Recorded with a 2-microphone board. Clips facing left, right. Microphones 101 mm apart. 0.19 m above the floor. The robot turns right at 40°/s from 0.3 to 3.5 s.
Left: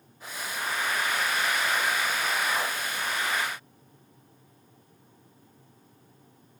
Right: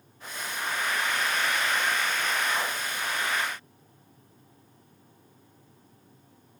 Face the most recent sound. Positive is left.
No sound to turn to.